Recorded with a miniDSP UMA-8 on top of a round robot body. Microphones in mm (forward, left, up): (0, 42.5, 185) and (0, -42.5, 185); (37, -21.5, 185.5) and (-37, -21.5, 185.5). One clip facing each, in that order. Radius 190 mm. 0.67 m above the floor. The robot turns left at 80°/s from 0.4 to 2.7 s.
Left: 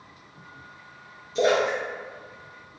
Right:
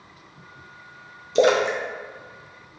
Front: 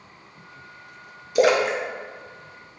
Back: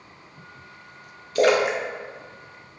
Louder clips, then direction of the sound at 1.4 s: Right 3 dB, even; 75° right.